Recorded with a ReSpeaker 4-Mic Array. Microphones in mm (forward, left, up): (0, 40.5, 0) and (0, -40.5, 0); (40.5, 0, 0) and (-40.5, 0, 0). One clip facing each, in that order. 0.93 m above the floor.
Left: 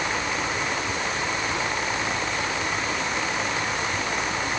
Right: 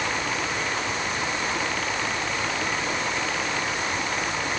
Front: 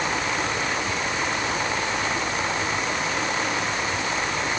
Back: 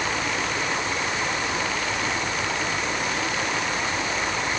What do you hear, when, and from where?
Only background noise.